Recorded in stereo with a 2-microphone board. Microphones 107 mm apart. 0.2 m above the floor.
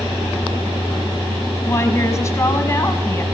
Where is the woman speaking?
30° left (ahead or behind), 1.3 m.